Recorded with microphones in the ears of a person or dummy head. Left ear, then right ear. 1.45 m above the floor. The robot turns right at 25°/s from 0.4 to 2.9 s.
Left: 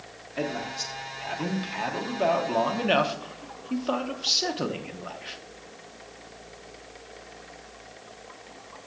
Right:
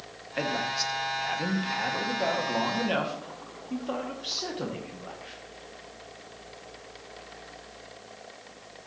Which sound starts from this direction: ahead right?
A man speaking, at 0.4 s.